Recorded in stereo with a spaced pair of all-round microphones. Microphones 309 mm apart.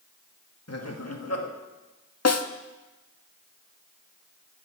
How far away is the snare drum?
About 0.7 m.